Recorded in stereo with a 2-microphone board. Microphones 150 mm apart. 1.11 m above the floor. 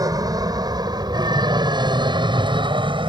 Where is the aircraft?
25° right (ahead or behind); by 3.1 s 35° right (ahead or behind).